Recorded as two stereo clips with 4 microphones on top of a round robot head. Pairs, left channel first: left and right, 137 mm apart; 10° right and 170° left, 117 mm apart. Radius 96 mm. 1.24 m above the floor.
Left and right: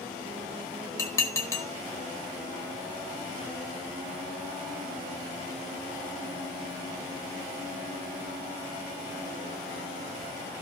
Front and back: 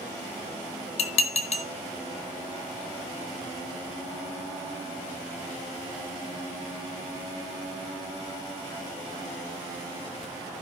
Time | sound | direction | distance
1.0 | dishes clattering | 15° left | 1.5 m